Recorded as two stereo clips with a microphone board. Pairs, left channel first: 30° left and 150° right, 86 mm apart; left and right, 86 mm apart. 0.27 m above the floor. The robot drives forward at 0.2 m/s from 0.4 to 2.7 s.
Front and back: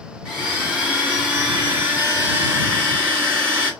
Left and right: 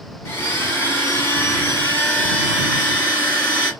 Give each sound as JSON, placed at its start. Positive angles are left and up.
{"t": 0.2, "sound": "a blender", "azimuth_deg": 135, "distance_m": 1.3}